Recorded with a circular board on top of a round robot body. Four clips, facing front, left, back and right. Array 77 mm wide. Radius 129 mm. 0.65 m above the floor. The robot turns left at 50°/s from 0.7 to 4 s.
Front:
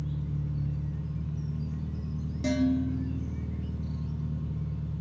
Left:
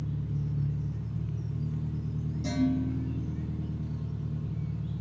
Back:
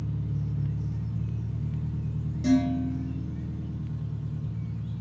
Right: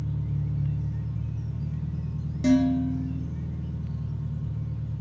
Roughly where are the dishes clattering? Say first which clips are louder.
Right 7 dB, back 3 dB; right.